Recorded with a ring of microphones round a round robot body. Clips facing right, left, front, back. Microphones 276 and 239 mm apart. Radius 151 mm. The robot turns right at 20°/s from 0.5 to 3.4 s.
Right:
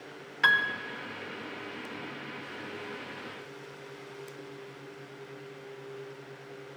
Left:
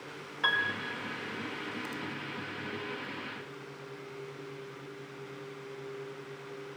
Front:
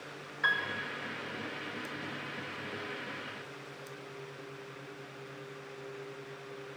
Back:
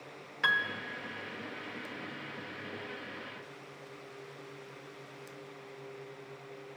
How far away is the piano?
About 0.9 m.